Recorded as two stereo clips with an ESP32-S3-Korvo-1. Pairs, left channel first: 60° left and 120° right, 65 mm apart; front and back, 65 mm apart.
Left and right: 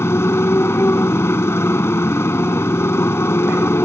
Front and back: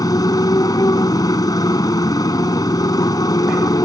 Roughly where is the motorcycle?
Ahead.